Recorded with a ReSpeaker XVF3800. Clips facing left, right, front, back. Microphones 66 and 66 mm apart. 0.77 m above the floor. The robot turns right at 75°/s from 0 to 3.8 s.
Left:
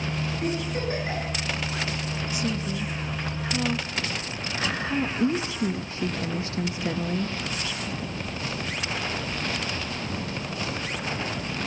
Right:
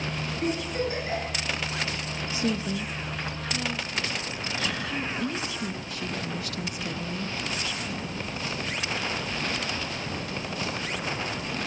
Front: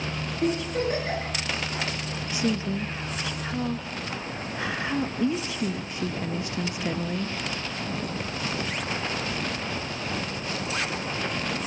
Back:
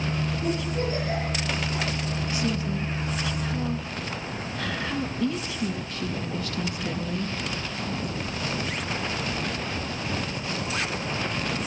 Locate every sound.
0.4 s a giggle: straight ahead, 8 m; by 1.3 s 70° left, 8 m
2.3 s a woman speaking: 55° right, 0.7 m; by 7.3 s 55° left, 0.7 m